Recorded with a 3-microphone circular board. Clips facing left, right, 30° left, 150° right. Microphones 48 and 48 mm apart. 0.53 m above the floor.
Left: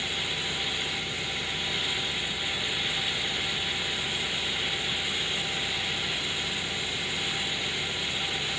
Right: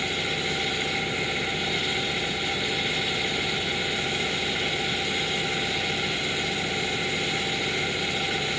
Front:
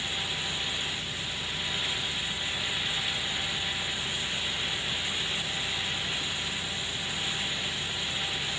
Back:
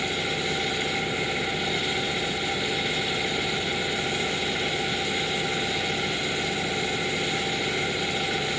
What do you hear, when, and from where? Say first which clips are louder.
0.0 s an engine running: right 4 dB, back 6 dB; 145° right